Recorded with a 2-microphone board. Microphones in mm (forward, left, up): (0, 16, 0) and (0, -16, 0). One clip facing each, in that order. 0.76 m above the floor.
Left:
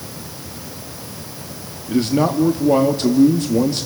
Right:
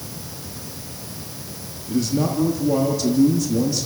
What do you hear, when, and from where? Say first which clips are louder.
1.9 s a man speaking: left 4 dB; 45° left (ahead or behind), 1.4 m